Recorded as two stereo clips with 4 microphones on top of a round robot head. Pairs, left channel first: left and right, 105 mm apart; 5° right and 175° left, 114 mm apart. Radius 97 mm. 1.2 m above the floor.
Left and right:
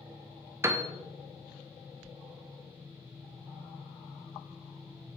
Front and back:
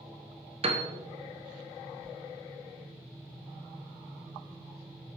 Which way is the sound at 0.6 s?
155° right.